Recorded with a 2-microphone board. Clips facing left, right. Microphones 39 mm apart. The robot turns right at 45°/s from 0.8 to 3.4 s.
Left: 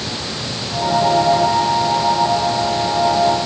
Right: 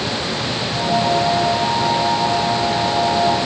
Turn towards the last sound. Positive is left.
No sound to turn to.